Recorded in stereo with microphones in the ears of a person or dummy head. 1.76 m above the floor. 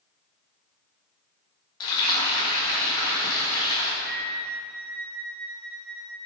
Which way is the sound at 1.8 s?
25° left (ahead or behind).